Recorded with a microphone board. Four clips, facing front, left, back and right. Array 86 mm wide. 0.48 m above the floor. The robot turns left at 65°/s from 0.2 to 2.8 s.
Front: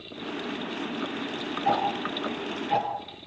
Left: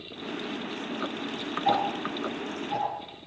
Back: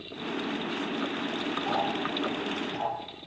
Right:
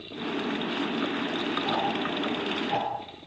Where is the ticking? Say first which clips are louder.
Left 5 dB, front 5 dB; 35° left, 8 m; by 3.3 s 35° right, 8 m.